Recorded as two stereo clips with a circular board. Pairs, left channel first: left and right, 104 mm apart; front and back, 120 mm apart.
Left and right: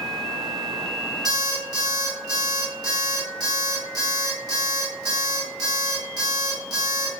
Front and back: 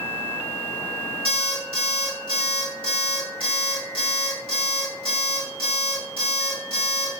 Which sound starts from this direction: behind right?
An alarm clock, at 1.2 s.